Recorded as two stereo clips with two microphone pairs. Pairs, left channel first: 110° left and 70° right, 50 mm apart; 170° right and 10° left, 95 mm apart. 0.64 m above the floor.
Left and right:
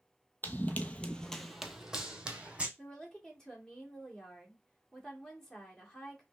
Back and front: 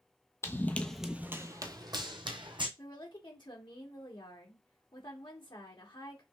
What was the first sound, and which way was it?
Running footsteps, 145° left.